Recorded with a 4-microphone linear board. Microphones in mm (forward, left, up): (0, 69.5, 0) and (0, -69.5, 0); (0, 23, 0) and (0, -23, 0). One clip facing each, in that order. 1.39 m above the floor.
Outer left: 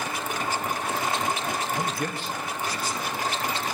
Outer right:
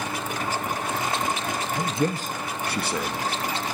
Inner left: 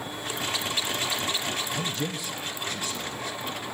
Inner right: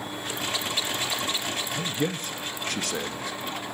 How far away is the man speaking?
About 0.7 m.